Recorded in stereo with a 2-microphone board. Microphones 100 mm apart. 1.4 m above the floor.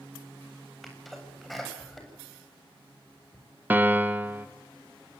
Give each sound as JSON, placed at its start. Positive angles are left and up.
{"t": 0.8, "sound": "a sneeze", "side_deg": 0, "distance_m": 8.0}
{"t": 3.7, "sound": "a piano", "side_deg": -20, "distance_m": 1.7}